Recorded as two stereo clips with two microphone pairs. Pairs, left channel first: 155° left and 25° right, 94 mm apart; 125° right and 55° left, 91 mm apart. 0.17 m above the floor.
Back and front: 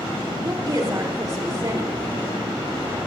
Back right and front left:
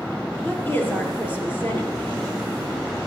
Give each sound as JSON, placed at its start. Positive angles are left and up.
{"t": 0.4, "sound": "a woman speaking", "azimuth_deg": -65, "distance_m": 4.0}